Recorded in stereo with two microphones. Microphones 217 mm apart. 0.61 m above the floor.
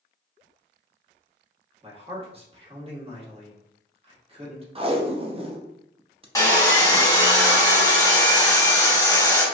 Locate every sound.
1.8 s a man speaking: 30° right (ahead or behind), 1.1 m
4.8 s tape being pulled: 30° right (ahead or behind), 0.5 m
6.3 s sawing: 15° left (ahead or behind), 1.1 m